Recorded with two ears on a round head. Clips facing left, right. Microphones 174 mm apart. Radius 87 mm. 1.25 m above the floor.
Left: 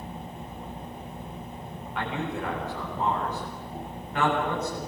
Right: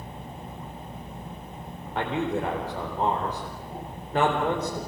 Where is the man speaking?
30° right (ahead or behind), 4 m.